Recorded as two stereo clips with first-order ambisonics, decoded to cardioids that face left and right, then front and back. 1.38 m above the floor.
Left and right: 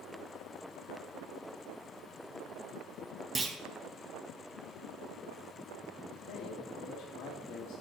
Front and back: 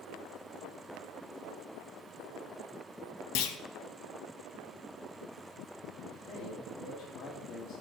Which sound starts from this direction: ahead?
A clunk, at 3.4 s.